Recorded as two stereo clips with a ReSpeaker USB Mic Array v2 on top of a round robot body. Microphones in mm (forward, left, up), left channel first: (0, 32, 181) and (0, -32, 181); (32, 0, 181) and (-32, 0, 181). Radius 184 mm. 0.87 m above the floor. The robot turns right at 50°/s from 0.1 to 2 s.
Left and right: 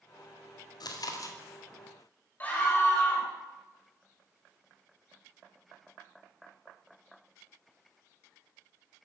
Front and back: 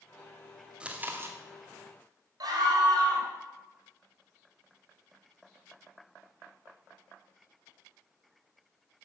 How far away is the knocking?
No knocking in this recording.